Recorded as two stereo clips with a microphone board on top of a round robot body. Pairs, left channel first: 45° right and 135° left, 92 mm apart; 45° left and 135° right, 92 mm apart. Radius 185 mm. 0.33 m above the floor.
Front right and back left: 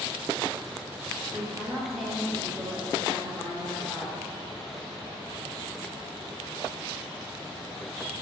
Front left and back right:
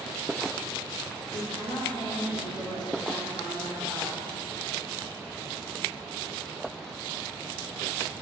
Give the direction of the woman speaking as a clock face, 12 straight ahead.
10 o'clock.